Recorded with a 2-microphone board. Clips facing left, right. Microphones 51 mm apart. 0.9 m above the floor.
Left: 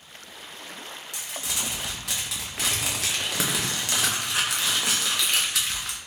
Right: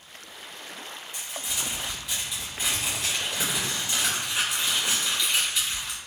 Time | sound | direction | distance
1.1 | crumpling | 75° left (ahead or behind) | 0.5 m